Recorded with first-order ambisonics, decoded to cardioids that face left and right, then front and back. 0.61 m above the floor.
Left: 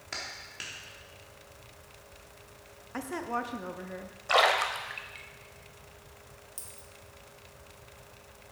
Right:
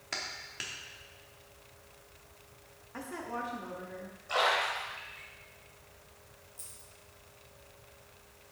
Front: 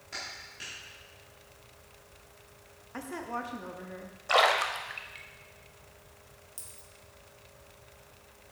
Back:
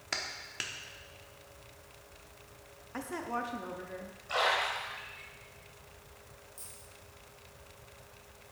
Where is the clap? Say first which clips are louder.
Right 1 dB, back 4 dB; 175° right, 1.1 m.